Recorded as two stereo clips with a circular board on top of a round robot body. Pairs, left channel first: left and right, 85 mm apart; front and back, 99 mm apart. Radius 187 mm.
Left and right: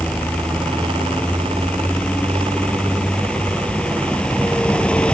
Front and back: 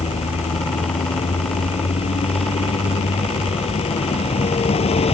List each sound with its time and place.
0.0 s a vehicle: 10° left